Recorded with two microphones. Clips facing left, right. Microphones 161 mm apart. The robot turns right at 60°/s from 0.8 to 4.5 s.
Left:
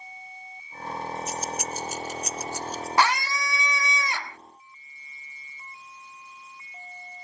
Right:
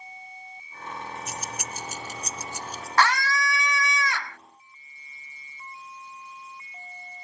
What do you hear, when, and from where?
1.3 s keys jangling: 65° right (ahead or behind); by 2.9 s centre (ahead or behind)
3.0 s a scream: 15° left (ahead or behind); by 4.4 s 20° left (ahead or behind)